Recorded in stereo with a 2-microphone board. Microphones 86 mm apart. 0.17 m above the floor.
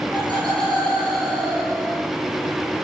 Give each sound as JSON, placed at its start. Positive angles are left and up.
{"t": 0.1, "sound": "laughter", "side_deg": -65, "distance_m": 4.0}